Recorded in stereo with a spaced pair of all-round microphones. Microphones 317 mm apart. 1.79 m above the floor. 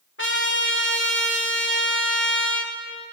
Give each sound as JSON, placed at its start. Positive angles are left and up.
{"t": 0.2, "sound": "a trumpet", "side_deg": 40, "distance_m": 2.5}